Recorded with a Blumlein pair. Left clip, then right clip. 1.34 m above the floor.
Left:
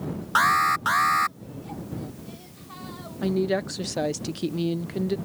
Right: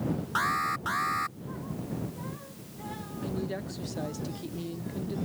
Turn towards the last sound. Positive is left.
turn(degrees=60)